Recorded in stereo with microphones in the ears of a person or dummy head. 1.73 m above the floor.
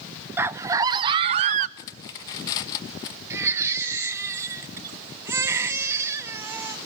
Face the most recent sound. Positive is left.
turn(degrees=-15)  # may be behind; listen again after turning